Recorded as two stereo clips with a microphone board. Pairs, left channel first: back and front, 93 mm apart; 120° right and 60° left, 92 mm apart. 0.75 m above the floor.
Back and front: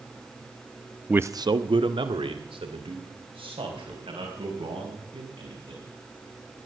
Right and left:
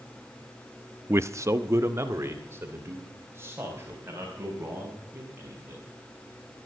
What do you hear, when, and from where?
1.1 s a man speaking: 65° left, 0.5 m; by 5.8 s 5° right, 7 m